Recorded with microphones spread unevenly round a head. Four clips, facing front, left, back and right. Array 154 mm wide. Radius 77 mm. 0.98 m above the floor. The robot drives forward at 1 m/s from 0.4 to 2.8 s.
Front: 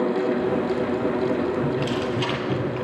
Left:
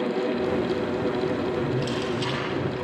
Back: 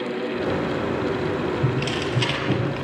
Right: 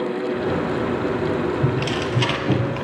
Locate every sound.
1.6 s tearing paper: 110° right, 5.5 m; by 2.9 s 120° right, 6 m